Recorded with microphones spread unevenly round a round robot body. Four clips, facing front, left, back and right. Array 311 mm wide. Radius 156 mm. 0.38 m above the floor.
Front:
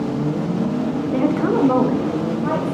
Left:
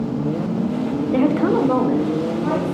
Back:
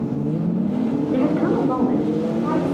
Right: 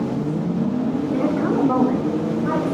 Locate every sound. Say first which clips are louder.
1.1 s a woman speaking: left 5 dB, front 2 dB; 85° left, 1.1 m; by 2.7 s 25° left, 2.5 m